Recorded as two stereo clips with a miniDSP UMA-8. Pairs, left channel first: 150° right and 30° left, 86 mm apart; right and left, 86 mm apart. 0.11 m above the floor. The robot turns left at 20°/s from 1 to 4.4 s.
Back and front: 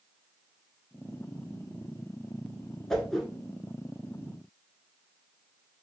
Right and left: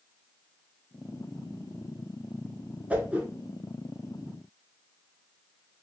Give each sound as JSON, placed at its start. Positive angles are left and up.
{"t": 2.9, "sound": "a whoosh", "azimuth_deg": 135, "distance_m": 0.6}